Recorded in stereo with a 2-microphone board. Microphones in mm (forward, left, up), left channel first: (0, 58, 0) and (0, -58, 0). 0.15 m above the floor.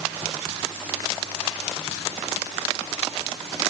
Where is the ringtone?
No ringtone in this recording.